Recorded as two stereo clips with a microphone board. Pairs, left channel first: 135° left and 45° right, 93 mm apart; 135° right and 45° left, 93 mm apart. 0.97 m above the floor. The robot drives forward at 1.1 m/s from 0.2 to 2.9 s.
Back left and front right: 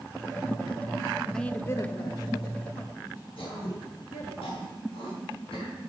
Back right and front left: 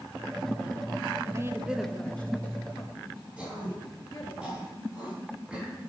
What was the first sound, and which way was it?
A woman speaking, 55° left.